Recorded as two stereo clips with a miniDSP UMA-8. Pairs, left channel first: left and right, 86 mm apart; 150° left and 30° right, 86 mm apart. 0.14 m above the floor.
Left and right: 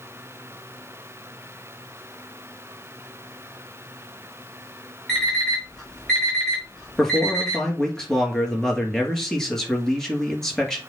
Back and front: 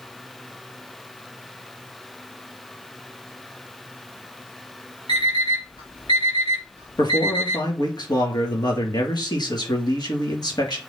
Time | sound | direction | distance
5.1 | an alarm clock | 175° left | 5.5 m
7.0 | a man speaking | 170° left | 3 m